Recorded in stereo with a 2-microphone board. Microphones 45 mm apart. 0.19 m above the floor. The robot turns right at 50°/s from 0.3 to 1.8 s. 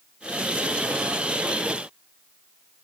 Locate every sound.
Only background noise.